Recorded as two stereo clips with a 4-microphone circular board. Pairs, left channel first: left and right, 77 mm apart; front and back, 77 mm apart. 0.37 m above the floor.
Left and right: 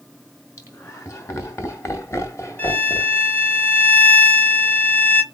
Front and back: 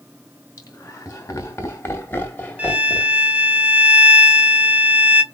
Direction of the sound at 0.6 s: 40° left.